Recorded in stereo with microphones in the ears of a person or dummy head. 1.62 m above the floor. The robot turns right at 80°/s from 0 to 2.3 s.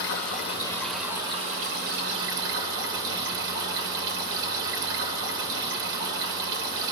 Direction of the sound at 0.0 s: 105° left.